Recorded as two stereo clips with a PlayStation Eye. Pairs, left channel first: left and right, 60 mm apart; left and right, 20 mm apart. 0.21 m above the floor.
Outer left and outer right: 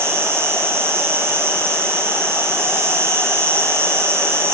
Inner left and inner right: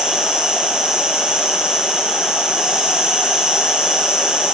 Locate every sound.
0.0 s an insect: 45° right (ahead or behind), 3.5 m